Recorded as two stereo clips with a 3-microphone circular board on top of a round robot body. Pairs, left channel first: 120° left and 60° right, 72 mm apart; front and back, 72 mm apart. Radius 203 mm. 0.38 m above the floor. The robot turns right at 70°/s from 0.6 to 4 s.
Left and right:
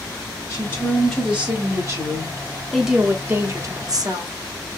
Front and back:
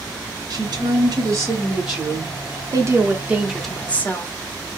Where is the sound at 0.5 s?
170° left, 1.6 m; by 2.4 s 70° right, 1.6 m.